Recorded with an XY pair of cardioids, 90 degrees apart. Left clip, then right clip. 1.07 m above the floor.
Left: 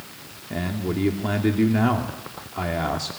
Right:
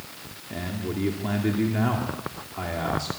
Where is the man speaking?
30° left, 2 m.